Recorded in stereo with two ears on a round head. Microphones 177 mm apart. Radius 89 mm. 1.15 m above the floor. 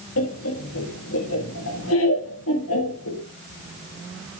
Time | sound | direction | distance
0.2 | laughter | 75° left (ahead or behind) | 1.5 m